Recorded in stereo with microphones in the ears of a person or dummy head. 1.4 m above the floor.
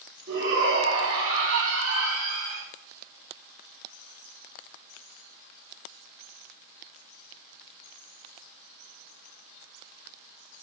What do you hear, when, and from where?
0.3 s a shout: 55° right (ahead or behind), 3.5 m; by 2.6 s 75° right (ahead or behind), 2.5 m